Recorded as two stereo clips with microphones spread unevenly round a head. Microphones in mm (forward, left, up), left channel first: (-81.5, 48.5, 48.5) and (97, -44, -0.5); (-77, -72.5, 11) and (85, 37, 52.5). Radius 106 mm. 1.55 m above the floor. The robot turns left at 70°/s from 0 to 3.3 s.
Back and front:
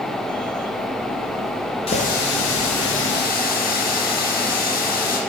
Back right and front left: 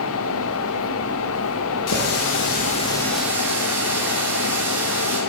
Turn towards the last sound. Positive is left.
turn(degrees=110)